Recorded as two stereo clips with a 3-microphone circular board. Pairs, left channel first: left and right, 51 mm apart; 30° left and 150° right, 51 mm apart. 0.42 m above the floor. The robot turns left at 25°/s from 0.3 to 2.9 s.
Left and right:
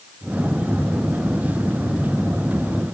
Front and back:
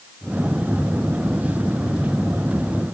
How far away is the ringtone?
I don't hear a ringtone.